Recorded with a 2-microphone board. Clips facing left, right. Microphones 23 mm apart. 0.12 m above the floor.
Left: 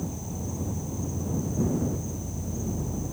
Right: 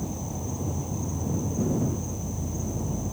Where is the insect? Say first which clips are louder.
Right 1 dB; 20° right (ahead or behind).